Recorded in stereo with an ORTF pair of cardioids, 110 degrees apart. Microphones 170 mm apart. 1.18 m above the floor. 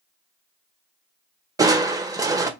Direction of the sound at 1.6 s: 20° right.